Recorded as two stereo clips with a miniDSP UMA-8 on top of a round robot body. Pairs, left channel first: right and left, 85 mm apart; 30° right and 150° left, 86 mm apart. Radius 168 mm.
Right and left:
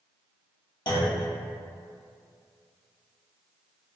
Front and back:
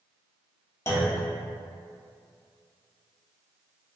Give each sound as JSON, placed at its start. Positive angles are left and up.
{"t": 0.9, "sound": "a clunk", "azimuth_deg": -80, "distance_m": 1.1}